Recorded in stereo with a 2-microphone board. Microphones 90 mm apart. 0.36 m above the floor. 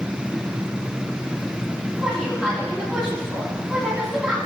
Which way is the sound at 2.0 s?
15° right (ahead or behind).